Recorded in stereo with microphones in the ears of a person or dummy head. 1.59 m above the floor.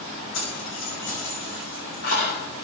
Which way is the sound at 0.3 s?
75° left (ahead or behind).